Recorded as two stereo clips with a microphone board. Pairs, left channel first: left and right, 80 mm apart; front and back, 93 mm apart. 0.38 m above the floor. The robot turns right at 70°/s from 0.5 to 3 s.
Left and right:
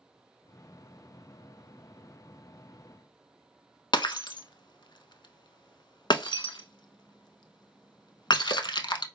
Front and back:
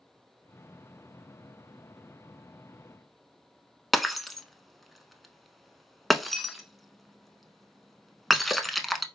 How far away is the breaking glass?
About 0.5 m.